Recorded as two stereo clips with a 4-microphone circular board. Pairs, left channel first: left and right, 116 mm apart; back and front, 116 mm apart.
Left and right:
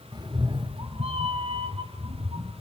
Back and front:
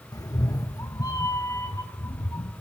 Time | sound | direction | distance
0.1 | a cat meowing | 135° right | 0.9 m